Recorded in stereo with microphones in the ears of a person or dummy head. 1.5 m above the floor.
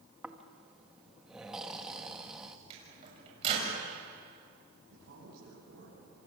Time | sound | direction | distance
0.2 | snoring | 5° right (ahead or behind) | 1.3 m
2.7 | a microwave | 30° right (ahead or behind) | 7 m
4.9 | a man speaking | 55° right (ahead or behind) | 9.5 m